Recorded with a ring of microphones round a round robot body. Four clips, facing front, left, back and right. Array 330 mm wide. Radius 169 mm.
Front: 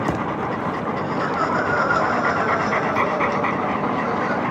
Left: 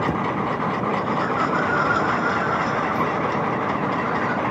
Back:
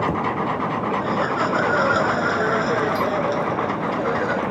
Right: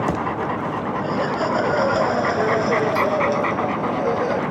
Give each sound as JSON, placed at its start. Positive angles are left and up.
{"t": 1.0, "sound": "laughter", "azimuth_deg": -125}